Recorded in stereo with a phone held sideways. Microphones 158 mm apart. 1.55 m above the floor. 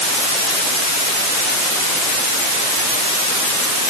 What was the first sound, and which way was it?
Only background noise.